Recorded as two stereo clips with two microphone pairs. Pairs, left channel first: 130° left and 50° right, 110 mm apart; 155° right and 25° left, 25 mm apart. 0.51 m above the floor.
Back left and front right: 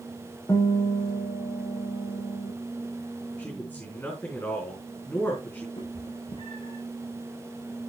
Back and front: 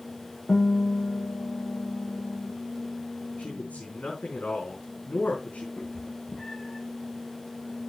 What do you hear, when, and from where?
0.5 s a guitar: 170° right, 6 m
3.4 s a man speaking: 160° right, 4.5 m
5.8 s a cat meowing: 155° left, 7.5 m